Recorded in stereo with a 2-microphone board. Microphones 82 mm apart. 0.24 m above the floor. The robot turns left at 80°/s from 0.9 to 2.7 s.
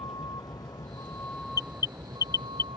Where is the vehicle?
50° left; by 2.8 s 95° right.